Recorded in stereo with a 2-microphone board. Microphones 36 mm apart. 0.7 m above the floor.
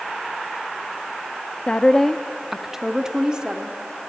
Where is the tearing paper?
I don't hear tearing paper.